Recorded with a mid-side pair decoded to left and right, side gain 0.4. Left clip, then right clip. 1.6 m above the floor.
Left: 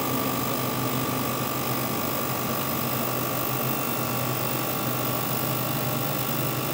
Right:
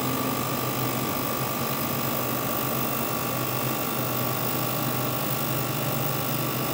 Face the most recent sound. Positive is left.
No sound to turn to.